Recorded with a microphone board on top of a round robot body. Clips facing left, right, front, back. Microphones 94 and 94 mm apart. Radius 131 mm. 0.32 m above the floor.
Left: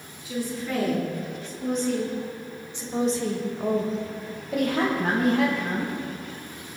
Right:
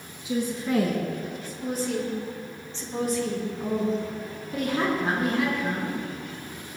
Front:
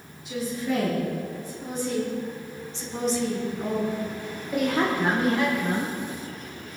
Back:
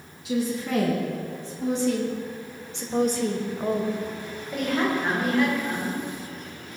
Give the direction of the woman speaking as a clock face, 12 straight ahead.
5 o'clock.